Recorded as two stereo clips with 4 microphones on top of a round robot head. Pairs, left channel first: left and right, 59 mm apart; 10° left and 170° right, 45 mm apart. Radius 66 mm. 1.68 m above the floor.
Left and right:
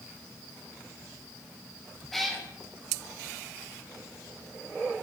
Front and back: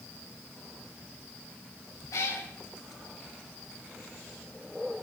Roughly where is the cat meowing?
Ahead.